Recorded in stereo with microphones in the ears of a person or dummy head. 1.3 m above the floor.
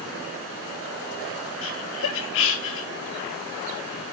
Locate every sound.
1.6 s laughter: 65° left (ahead or behind), 1.0 m